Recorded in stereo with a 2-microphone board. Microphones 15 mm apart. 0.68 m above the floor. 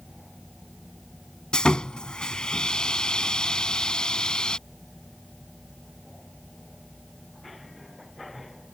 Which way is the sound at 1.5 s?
80° left.